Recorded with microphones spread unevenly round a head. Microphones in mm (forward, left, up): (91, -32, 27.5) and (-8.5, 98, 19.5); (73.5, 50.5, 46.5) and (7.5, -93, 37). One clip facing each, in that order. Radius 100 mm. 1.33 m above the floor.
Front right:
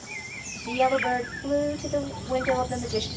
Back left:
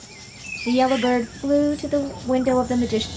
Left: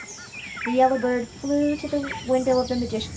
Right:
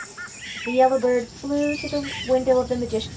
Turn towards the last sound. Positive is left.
turn(degrees=150)